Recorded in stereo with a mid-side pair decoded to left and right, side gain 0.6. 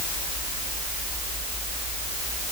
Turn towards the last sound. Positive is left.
No sound to turn to.